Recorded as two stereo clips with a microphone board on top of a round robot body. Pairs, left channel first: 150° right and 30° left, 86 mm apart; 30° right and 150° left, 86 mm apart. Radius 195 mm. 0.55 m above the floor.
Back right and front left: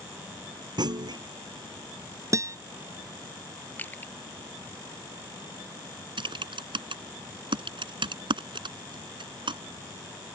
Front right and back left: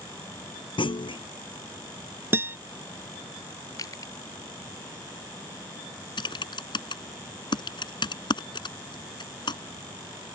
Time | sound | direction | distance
0.8 | a clunk | 5° right | ?
2.3 | a guitar | 85° left | ?
3.8 | crushing | 80° right | ?
6.2 | typing on a keyboard | 5° left | ?